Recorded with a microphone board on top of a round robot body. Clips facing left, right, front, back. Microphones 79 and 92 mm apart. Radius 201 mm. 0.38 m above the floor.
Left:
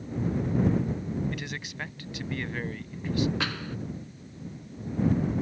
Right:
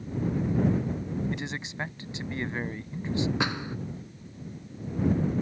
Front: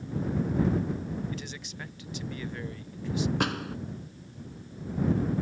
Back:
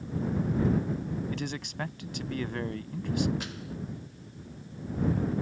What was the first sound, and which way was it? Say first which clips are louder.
A man speaking: right 2 dB, back 4 dB; 155° right.